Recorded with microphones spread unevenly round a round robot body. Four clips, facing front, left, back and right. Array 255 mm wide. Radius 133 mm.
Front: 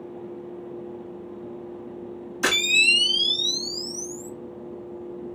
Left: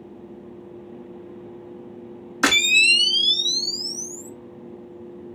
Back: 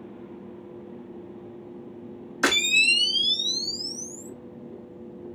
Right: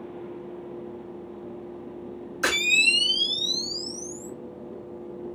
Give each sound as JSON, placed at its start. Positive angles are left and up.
{"t": 2.4, "sound": "a camera shutter", "azimuth_deg": 75, "distance_m": 1.3}